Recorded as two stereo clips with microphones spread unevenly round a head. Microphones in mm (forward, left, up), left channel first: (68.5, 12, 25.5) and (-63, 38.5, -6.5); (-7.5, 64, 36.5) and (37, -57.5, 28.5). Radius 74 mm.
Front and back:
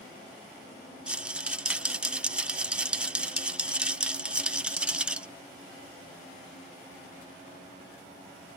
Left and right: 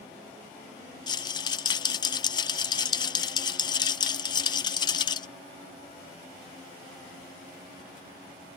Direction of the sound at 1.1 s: 120° left.